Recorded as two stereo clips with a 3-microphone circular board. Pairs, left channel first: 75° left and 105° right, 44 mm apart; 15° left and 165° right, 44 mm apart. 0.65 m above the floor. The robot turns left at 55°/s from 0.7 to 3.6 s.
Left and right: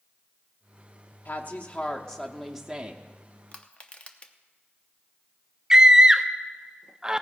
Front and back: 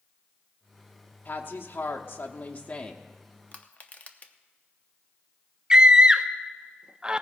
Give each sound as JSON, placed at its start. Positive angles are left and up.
{"t": 1.2, "sound": "a woman speaking", "azimuth_deg": 50, "distance_m": 0.9}
{"t": 3.5, "sound": "crushing", "azimuth_deg": 40, "distance_m": 0.8}
{"t": 5.7, "sound": "a scream", "azimuth_deg": -140, "distance_m": 0.5}